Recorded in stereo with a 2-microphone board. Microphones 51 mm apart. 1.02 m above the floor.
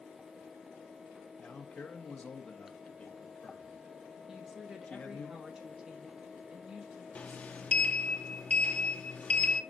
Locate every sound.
1.4 s a man speaking: 20° left (ahead or behind), 1.7 m
4.3 s a woman speaking: 10° right (ahead or behind), 1.4 m
7.2 s a sliding door: 25° left (ahead or behind), 0.8 m